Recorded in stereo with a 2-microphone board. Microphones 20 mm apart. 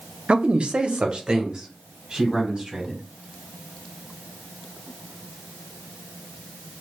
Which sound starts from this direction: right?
A man speaking, at 0.3 s.